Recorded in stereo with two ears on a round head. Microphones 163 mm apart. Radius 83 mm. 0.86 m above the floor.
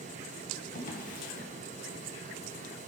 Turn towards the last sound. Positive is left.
turn(degrees=50)  # may be behind; listen again after turning